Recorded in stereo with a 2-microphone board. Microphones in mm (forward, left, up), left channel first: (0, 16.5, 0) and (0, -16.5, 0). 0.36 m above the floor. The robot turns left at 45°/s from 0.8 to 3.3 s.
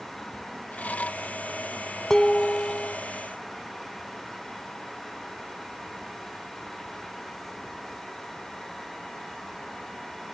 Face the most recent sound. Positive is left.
turn(degrees=110)